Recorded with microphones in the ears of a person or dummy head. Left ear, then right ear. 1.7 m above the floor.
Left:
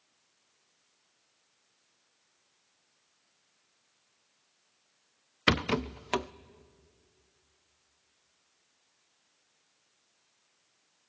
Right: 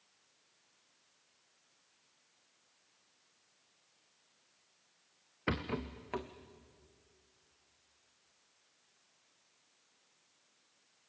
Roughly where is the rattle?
Left.